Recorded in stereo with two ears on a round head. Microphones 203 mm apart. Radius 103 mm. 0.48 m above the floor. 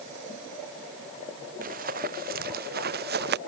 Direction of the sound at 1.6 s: 35° right (ahead or behind).